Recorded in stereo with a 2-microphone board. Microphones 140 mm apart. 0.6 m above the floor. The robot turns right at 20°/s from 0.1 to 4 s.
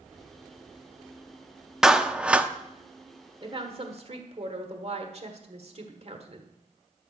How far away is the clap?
About 0.5 m.